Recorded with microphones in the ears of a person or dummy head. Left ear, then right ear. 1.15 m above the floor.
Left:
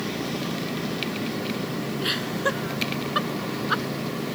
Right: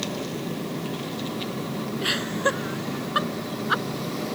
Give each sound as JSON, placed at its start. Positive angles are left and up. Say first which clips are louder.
{"t": 2.0, "sound": "laughter", "louder": "right 2 dB", "side_deg": -15}